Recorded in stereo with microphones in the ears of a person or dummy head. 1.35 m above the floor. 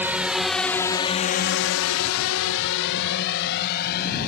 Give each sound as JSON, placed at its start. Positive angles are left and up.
{"t": 0.0, "sound": "a drone", "side_deg": -5}